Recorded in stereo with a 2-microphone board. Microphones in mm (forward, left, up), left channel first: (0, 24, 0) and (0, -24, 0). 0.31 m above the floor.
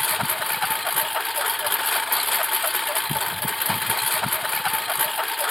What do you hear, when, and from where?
0.0 s a lawn mower: centre (ahead or behind)